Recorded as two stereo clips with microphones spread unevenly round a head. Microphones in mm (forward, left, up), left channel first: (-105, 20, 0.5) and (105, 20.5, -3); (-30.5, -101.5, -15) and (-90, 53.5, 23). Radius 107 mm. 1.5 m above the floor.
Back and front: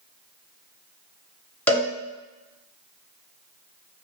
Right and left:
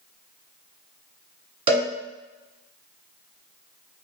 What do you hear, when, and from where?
1.7 s a cowbell: 105° left, 1.4 m